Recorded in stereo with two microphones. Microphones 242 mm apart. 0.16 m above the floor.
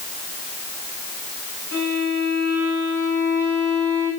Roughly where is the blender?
I don't hear a blender.